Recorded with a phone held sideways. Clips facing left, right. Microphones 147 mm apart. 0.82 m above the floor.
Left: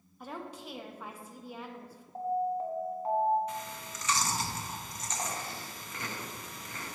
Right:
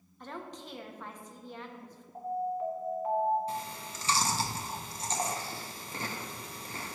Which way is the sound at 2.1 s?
30° left (ahead or behind).